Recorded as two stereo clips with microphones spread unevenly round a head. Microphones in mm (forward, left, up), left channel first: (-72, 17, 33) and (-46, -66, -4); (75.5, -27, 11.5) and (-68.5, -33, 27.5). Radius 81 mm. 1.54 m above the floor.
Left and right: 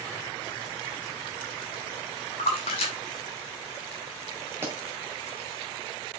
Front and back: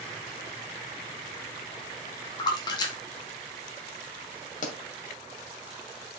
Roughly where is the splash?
Left.